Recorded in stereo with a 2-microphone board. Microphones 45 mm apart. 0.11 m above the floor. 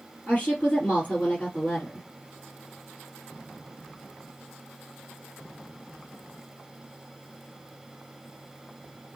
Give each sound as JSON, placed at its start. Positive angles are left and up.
{"t": 0.3, "sound": "a woman speaking", "side_deg": 35, "distance_m": 3.0}